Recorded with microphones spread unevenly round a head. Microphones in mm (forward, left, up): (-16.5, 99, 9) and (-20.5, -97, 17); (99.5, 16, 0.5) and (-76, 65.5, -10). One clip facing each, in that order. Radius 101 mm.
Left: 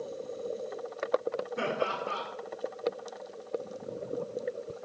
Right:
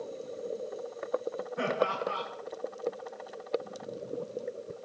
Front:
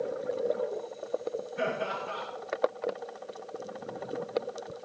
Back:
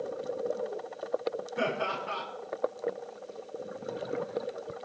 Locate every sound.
1.6 s laughter: 140° left, 7 m